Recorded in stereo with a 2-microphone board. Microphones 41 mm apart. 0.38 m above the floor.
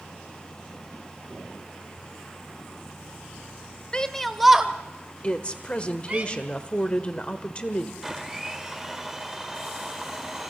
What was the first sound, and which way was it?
A shout, 20° left (ahead or behind).